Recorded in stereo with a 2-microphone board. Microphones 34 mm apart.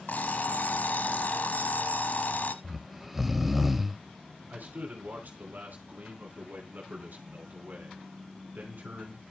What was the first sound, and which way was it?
An alarm clock, 60° left (ahead or behind).